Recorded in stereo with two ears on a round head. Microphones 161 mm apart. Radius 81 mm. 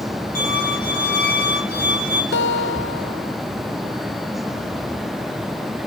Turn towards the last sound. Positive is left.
turn(degrees=75)  # may be behind; listen again after turning